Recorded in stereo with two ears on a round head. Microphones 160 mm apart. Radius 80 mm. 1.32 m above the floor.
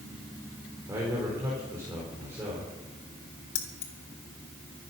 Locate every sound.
0.9 s a man speaking: 15° right (ahead or behind), 4 m
3.5 s keys jangling: 75° left (ahead or behind), 2.5 m